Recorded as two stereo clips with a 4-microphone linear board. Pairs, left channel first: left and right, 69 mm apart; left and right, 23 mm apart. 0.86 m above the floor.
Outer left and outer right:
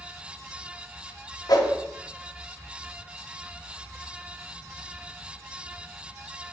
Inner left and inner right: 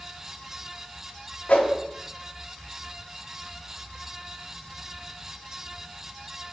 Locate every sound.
1.5 s a whoosh: 70° left (ahead or behind), 0.6 m